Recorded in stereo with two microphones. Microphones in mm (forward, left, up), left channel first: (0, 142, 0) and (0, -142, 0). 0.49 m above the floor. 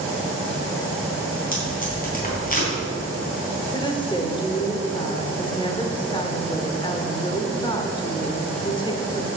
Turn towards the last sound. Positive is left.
turn(degrees=15)  # may be behind; listen again after turning